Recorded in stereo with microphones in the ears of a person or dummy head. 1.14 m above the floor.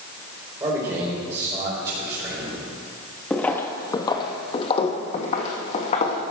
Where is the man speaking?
20° right (ahead or behind), 4 m.